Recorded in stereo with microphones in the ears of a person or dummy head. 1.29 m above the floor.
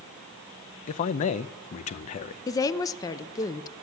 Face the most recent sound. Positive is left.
turn(degrees=20)  # may be behind; listen again after turning